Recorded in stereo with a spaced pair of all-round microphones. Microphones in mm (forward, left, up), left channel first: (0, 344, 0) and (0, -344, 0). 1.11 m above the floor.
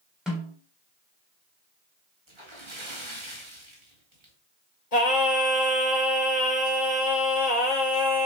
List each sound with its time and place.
0.3 s a snare drum: centre (ahead or behind), 4 m
2.3 s a splash: 45° right (ahead or behind), 2.5 m
4.9 s singing: 75° left (ahead or behind), 2 m